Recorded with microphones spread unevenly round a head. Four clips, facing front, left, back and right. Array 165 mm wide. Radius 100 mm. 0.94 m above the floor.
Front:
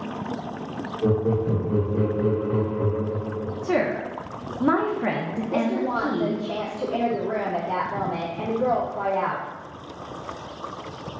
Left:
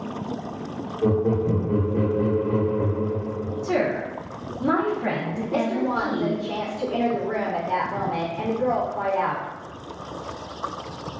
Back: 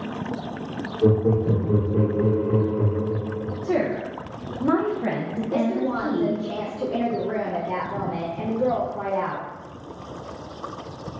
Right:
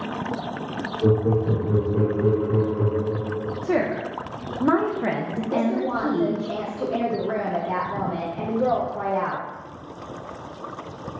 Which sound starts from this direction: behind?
Laughter, at 1.0 s.